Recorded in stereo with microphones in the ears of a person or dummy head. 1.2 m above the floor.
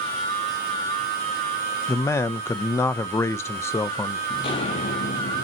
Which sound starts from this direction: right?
A machine running, at 0.0 s.